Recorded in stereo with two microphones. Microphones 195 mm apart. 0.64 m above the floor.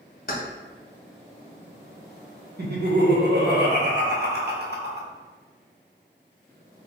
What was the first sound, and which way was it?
Keys jangling, 45° left (ahead or behind).